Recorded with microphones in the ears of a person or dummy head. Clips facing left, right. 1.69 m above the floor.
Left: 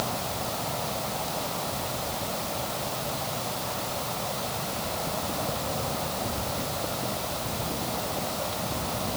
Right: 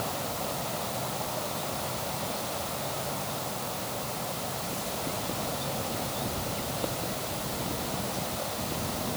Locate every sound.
Only background noise.